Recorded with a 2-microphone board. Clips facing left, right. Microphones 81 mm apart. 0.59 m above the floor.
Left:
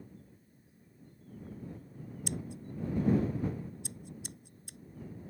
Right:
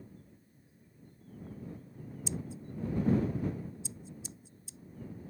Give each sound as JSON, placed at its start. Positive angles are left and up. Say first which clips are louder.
{"t": 2.3, "sound": "scissors", "louder": "even", "side_deg": 60}